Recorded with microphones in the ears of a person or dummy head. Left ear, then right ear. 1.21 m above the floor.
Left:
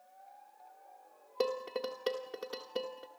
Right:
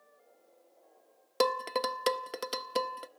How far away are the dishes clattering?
About 0.6 m.